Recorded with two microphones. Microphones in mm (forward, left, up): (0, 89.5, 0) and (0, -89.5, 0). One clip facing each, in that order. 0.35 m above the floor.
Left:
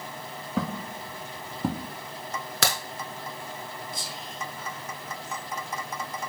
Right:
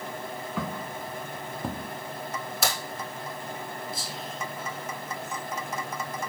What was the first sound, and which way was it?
Footsteps, 35° left (ahead or behind).